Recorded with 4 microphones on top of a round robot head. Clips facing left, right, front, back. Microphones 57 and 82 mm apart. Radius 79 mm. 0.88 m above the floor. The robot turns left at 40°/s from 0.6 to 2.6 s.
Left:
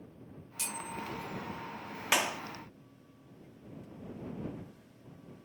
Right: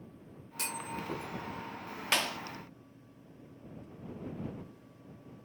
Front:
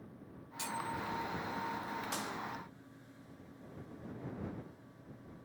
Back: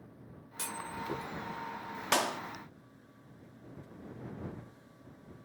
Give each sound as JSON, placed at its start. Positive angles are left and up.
{"t": 0.6, "sound": "a clunk", "azimuth_deg": -130}
{"t": 2.1, "sound": "a clap", "azimuth_deg": 170}